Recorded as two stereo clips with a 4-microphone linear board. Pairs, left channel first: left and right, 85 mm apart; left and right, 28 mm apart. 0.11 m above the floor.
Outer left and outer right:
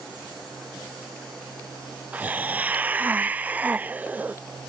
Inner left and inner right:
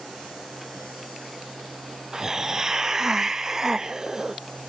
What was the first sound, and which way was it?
A hiss, 20° right (ahead or behind).